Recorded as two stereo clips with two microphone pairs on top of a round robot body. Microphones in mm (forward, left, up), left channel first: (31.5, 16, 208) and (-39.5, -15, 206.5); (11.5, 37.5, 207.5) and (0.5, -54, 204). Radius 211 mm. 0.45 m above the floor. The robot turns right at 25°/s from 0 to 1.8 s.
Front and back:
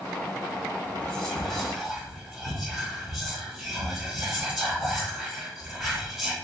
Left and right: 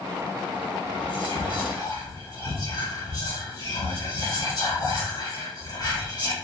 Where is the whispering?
95° left, 2.5 m; by 6.3 s 115° left, 2.5 m.